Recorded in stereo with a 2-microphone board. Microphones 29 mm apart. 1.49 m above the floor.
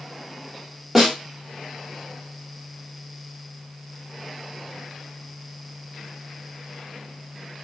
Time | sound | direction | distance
0.9 | a snare drum | 5° right (ahead or behind) | 1.0 m